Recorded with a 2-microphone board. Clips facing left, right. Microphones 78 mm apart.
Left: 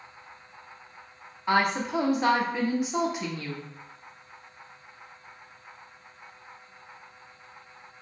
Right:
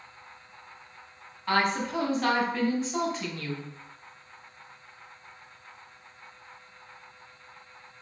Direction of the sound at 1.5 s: 15° left (ahead or behind).